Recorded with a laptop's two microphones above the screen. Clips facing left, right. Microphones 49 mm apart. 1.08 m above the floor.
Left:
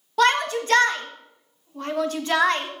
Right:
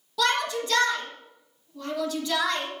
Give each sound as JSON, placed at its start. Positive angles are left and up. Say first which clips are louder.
{"t": 0.2, "sound": "a shout", "louder": "left 5 dB", "side_deg": 45, "distance_m": 1.1}